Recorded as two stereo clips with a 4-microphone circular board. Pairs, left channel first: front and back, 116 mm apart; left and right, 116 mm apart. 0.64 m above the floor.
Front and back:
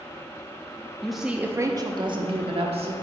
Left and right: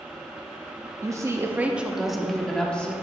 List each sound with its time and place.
1.0 s a woman speaking: 80° right, 0.6 m; by 2.9 s 170° left, 1.1 m